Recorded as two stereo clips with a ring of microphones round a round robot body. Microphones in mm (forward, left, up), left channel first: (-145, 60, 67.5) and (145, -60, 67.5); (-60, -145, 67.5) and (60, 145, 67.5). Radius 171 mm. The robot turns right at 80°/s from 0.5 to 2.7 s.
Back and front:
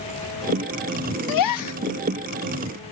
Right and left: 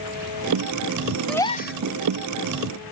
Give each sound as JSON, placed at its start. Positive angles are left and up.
{"t": 1.3, "sound": "a gasp", "azimuth_deg": 160}